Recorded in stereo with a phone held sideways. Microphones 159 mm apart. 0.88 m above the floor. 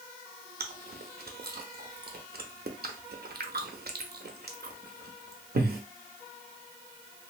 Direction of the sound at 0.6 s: 80° right.